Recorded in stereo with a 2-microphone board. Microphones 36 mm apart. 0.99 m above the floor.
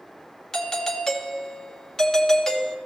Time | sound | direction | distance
0.5 | a doorbell | 10° left (ahead or behind) | 1.7 m